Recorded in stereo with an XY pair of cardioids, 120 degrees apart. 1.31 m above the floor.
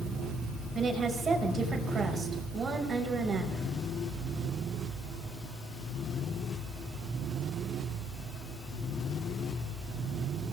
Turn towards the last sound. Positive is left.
turn(degrees=-35)